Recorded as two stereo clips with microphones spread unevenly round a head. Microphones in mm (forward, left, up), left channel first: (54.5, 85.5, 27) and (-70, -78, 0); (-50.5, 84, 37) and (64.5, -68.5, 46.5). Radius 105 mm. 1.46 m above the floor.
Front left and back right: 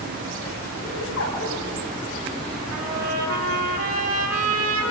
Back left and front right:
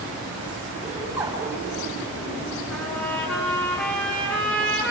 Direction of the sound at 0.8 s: 30° left.